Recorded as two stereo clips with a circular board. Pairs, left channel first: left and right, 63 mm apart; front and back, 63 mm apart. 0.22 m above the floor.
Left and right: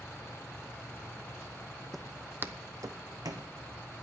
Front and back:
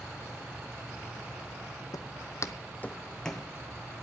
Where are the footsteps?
5° left, 0.6 m; by 3.5 s 85° right, 1.0 m.